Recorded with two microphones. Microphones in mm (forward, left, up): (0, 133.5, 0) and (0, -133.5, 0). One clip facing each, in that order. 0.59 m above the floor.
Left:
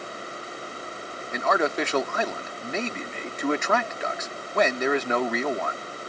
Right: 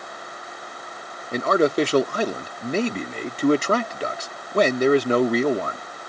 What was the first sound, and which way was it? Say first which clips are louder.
A man speaking: right 6 dB; 40° right (ahead or behind).